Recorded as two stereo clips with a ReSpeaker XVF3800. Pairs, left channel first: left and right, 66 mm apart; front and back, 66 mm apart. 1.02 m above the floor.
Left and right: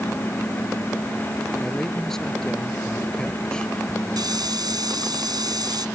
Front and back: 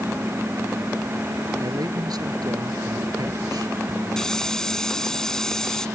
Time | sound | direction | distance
1.6 | a man speaking | 175° left | ?
4.2 | a hiss | 80° right | ?